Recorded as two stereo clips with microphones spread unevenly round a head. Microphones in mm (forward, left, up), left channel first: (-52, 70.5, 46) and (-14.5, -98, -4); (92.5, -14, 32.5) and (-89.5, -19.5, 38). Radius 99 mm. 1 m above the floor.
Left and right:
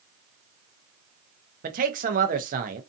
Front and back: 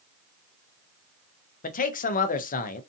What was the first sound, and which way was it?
A man speaking, 40° right.